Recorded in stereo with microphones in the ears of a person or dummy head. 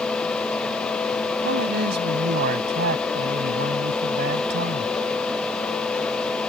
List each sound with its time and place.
1.4 s a man speaking: 55° right (ahead or behind)